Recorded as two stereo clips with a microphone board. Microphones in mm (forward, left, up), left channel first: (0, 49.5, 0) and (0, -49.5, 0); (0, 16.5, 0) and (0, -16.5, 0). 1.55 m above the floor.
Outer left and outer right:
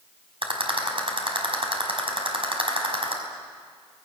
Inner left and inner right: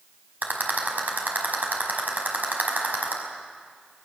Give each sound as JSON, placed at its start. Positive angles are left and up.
{"t": 0.4, "sound": "a rattle", "side_deg": -65, "distance_m": 5.0}